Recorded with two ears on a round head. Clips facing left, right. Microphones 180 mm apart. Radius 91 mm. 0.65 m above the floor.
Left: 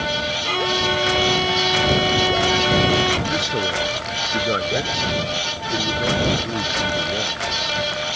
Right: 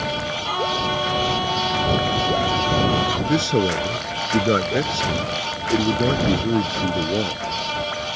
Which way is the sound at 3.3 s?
35° right (ahead or behind).